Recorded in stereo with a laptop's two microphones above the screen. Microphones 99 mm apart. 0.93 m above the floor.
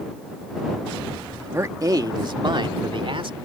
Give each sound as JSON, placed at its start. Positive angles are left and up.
{"t": 1.5, "sound": "a man speaking", "side_deg": -25}